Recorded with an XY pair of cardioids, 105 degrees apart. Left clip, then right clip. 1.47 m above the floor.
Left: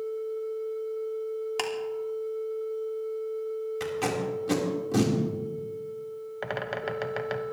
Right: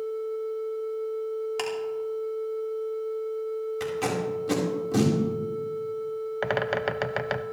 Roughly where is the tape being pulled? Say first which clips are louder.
Even; ahead.